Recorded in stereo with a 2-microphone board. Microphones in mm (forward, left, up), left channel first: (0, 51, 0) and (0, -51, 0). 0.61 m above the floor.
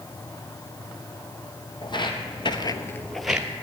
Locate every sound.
1.8 s footsteps: 50° left (ahead or behind), 1.6 m; by 3.5 s 15° right (ahead or behind), 1.1 m